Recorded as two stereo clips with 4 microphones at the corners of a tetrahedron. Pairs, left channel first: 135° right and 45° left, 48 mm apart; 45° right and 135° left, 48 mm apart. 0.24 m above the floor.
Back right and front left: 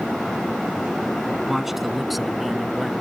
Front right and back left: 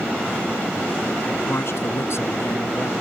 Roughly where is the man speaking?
Ahead right.